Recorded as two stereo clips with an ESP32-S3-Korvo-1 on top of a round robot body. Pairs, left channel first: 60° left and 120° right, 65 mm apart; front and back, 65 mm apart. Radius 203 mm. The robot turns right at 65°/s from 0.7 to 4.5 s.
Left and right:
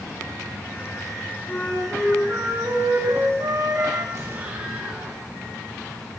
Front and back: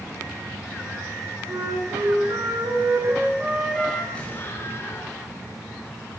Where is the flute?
120° left, 8 m; by 4.0 s 70° right, 8 m.